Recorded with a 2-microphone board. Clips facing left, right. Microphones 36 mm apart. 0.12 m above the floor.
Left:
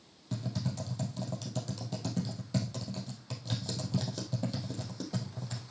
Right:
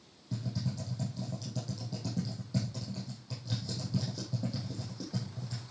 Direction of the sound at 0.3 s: 65° left (ahead or behind).